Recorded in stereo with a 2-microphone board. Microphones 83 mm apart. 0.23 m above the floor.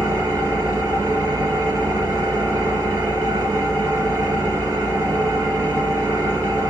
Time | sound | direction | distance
0.0 | an engine running | 35° right (ahead or behind) | 1.9 m